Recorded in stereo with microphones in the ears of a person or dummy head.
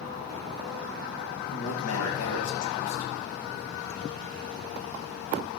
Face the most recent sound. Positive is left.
turn(degrees=75)  # may be behind; listen again after turning